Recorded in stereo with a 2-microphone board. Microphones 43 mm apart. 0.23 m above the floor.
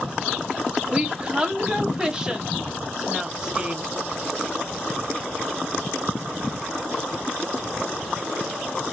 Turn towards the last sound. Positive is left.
turn(degrees=-20)  # may be behind; listen again after turning